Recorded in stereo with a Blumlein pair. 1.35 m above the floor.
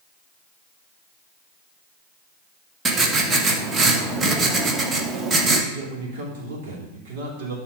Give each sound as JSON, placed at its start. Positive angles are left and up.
{"t": 2.9, "sound": "writing", "azimuth_deg": -20, "distance_m": 1.1}
{"t": 5.7, "sound": "a man speaking", "azimuth_deg": -50, "distance_m": 3.0}